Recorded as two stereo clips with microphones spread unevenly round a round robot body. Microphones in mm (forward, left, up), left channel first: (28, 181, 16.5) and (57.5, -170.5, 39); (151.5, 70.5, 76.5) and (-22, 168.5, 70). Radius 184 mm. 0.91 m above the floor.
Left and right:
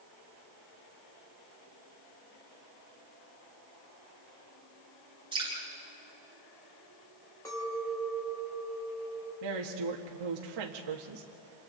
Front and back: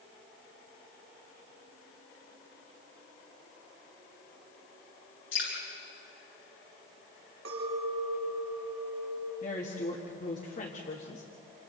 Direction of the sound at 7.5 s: 175° left.